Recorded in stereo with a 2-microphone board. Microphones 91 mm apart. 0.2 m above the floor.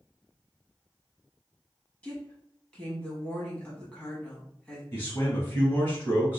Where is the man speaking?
30° left (ahead or behind), 1.3 m.